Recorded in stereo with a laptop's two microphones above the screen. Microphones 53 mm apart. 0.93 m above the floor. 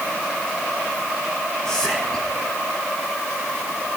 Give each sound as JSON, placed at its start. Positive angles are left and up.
{"t": 1.6, "sound": "whispering", "side_deg": 15, "distance_m": 1.4}